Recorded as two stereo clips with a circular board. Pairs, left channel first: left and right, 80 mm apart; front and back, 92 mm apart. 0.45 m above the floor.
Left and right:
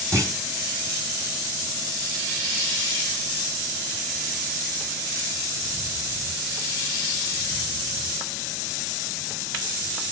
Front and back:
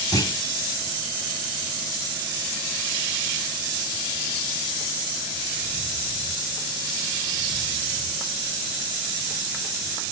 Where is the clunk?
45° right, 1.9 m.